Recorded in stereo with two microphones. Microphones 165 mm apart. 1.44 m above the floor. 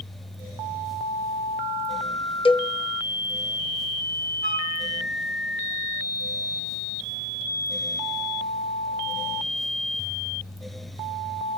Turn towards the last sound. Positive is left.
turn(degrees=75)  # may be behind; listen again after turning